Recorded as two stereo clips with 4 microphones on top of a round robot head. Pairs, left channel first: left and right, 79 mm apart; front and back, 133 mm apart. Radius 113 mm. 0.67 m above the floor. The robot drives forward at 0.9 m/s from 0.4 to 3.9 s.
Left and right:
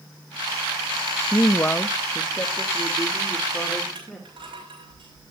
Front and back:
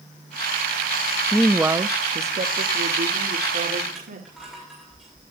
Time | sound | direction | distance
1.3 | a woman speaking | 60° left | 0.6 m
4.0 | crushing | 95° right | 6 m